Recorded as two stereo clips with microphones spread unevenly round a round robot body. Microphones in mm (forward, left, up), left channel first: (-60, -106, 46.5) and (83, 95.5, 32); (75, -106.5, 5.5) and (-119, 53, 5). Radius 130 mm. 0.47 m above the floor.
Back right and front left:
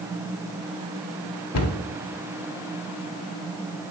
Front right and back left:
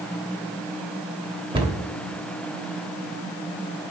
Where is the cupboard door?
150° right, 0.9 m.